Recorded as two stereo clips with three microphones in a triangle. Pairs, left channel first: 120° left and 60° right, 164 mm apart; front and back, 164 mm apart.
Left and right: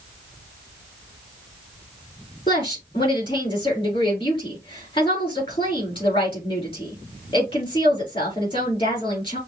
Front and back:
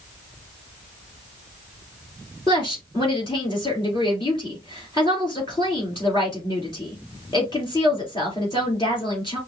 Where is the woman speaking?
60° left, 3.5 m.